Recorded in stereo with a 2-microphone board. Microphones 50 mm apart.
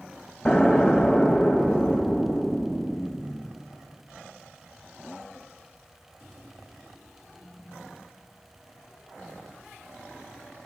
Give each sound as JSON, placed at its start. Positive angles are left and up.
{"t": 0.5, "sound": "an explosion", "side_deg": 10, "distance_m": 1.1}